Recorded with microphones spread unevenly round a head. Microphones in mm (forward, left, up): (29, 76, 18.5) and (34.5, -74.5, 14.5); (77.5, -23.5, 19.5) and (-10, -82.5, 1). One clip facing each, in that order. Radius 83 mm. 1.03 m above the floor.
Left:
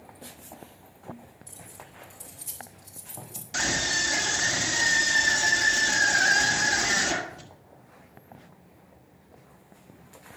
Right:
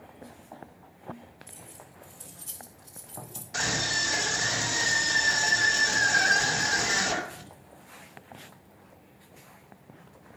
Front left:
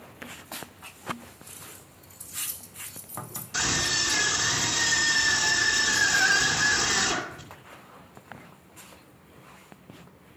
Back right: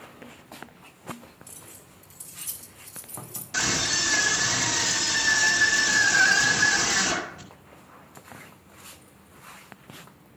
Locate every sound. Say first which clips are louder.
1.5 s keys jangling: left 1 dB, front left 1 dB; 170° left, 2.5 m
3.5 s a scream: left 1 dB, back right 1 dB; 160° left, 2 m